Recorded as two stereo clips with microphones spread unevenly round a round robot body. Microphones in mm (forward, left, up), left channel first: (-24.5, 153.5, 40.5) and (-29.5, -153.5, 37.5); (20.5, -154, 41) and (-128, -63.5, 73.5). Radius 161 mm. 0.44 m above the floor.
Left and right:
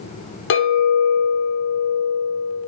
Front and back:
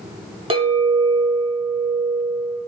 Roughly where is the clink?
Left.